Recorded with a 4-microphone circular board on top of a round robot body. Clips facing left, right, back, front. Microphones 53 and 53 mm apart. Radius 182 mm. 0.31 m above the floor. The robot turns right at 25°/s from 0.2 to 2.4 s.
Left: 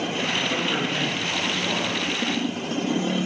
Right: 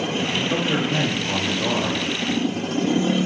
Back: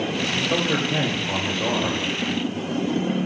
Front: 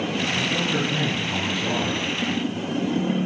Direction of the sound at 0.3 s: 175° right.